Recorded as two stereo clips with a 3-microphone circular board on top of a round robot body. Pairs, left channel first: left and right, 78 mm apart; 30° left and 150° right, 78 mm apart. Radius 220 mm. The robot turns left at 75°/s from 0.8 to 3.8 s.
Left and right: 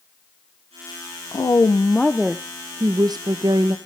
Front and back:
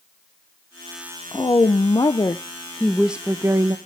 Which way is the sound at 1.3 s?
65° left.